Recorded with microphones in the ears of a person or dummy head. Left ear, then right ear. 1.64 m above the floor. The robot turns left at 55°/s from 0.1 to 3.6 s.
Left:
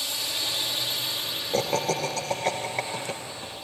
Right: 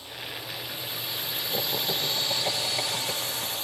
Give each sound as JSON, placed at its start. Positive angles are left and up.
{"t": 0.0, "sound": "a drone", "azimuth_deg": 70}
{"t": 1.5, "sound": "laughter", "azimuth_deg": 85}